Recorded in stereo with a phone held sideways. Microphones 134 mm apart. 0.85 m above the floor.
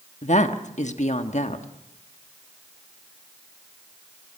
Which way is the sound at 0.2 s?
60° left (ahead or behind).